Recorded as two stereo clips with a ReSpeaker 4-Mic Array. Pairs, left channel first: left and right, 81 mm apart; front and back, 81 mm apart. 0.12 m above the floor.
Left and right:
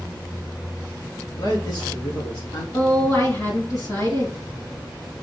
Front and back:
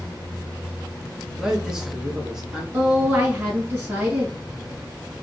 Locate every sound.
1.3 s a man speaking: 100° left, 1.8 m
2.7 s a woman speaking: 120° left, 2.5 m